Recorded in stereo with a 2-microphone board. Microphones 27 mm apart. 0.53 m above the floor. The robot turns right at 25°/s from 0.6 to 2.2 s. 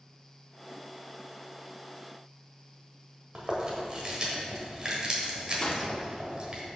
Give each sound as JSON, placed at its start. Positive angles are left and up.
{"t": 3.4, "sound": "chewing", "side_deg": -35, "distance_m": 1.4}
{"t": 5.6, "sound": "a gunshot", "side_deg": 35, "distance_m": 0.7}